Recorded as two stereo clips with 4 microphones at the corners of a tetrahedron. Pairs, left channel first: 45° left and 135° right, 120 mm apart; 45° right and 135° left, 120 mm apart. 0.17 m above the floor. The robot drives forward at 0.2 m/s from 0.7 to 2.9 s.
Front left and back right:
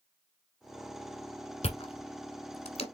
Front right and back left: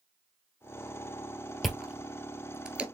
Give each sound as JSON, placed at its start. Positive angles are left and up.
{"t": 1.6, "sound": "chewing", "azimuth_deg": 45, "distance_m": 1.0}